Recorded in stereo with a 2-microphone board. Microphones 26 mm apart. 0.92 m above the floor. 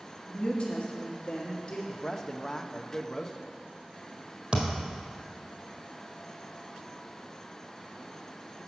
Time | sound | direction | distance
0.3 | a woman speaking | 45° left (ahead or behind) | 1.3 m
1.9 | a man speaking | 20° left (ahead or behind) | 0.7 m
4.5 | a thud | 50° right (ahead or behind) | 1.9 m